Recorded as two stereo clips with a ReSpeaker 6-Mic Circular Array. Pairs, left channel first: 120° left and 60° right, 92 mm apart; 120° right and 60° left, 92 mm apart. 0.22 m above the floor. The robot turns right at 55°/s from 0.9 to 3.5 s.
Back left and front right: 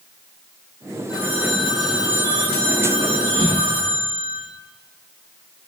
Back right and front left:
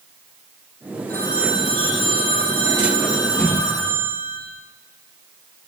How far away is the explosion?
About 10 m.